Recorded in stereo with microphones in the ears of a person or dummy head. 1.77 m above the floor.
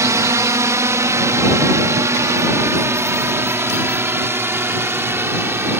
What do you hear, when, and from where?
0.0 s a drone: 10° right (ahead or behind); by 5.8 s 5° right (ahead or behind)